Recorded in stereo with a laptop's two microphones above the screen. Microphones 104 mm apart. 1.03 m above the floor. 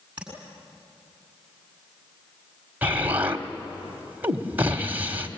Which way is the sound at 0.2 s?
20° right (ahead or behind).